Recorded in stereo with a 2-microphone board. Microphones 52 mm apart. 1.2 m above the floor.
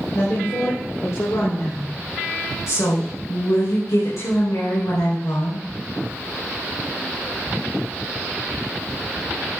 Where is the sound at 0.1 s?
75° left (ahead or behind), 3.5 m.